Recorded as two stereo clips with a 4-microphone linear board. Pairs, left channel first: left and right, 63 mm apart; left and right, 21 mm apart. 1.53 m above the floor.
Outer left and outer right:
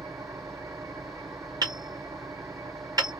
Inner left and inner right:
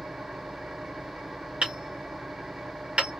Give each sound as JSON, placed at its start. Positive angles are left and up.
{"t": 0.0, "sound": "an engine running", "side_deg": -50, "distance_m": 0.8}
{"t": 1.6, "sound": "hammering", "side_deg": -70, "distance_m": 2.0}